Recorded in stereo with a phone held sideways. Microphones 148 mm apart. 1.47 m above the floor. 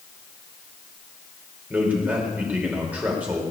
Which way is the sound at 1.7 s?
10° right (ahead or behind).